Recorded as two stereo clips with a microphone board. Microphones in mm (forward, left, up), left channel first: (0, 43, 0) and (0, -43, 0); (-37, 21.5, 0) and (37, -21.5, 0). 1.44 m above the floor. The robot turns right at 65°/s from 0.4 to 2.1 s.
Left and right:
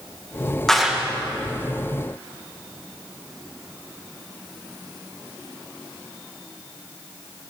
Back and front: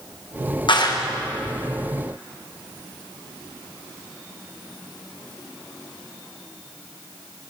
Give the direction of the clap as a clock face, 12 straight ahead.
6 o'clock.